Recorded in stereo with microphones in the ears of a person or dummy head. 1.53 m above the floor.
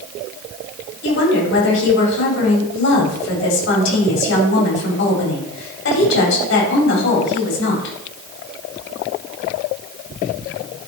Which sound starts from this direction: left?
A woman speaking, at 1.0 s.